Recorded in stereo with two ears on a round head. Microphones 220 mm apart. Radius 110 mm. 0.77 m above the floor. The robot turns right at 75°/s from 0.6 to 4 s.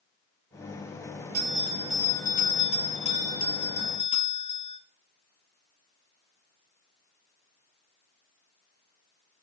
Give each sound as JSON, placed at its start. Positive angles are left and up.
{"t": 1.3, "sound": "a bell", "azimuth_deg": -45, "distance_m": 5.0}